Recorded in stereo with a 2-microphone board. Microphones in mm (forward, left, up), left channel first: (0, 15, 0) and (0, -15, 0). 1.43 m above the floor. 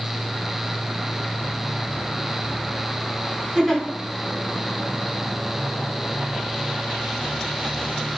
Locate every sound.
3.5 s a giggle: 5° right (ahead or behind), 0.9 m